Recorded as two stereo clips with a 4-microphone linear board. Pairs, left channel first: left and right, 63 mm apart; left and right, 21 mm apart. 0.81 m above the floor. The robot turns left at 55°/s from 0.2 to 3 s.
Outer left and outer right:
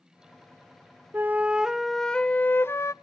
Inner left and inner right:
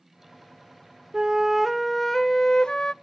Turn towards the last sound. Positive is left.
turn(degrees=115)